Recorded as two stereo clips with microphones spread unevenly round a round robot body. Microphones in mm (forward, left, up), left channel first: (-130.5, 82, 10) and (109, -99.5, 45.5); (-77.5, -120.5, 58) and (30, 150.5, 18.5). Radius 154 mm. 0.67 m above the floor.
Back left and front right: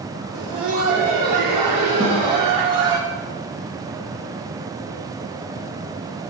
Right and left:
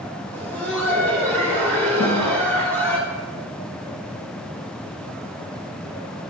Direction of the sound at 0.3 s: 20° right.